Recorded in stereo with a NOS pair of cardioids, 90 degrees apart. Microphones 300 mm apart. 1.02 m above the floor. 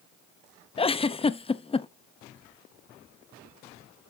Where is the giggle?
20° left, 0.7 m.